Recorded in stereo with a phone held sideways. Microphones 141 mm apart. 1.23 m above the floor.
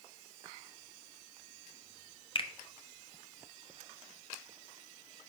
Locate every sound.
2.4 s a finger snap: 40° left (ahead or behind), 0.7 m